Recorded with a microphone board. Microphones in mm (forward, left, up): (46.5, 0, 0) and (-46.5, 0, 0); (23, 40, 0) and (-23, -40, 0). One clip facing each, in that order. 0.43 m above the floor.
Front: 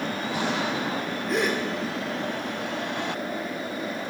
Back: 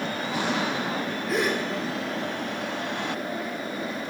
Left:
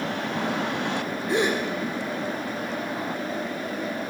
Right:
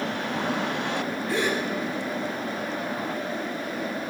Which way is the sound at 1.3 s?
95° left.